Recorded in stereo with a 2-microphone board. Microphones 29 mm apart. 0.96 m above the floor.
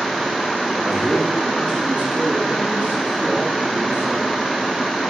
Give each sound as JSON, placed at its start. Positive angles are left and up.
{"t": 0.8, "sound": "a man speaking", "side_deg": -50, "distance_m": 1.5}